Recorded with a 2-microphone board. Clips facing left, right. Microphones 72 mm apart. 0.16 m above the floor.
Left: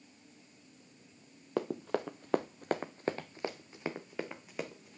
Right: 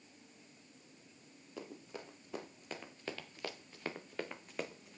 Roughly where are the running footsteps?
Left.